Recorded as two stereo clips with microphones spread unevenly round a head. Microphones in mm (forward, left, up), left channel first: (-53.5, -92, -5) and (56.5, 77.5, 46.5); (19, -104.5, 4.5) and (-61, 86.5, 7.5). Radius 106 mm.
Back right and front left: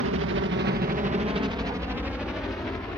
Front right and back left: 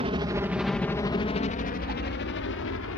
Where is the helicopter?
55° left; by 3.0 s 45° right.